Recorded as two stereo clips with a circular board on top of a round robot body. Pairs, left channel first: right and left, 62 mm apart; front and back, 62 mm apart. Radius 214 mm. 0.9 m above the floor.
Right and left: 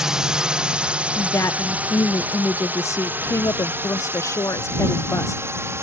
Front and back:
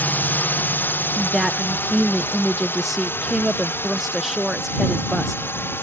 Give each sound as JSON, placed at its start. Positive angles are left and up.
{"t": 0.0, "sound": "a drone", "azimuth_deg": 20}
{"t": 1.1, "sound": "a woman speaking", "azimuth_deg": -90}